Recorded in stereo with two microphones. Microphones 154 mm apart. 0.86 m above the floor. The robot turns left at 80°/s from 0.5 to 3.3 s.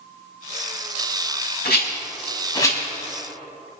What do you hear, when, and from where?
1.6 s a rattle: 80° left, 4 m; by 2.8 s 10° left (ahead or behind), 4 m